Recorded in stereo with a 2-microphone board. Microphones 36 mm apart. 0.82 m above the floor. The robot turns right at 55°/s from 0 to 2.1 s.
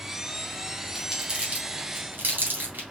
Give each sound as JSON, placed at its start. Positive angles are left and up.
{"t": 0.9, "sound": "crumpling", "side_deg": -5, "distance_m": 1.8}